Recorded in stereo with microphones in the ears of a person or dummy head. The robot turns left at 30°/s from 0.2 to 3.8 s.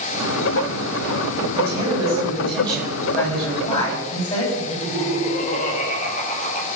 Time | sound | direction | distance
1.6 | a man speaking | 150° right | 10 m
4.6 | laughter | 40° left (ahead or behind) | 5.5 m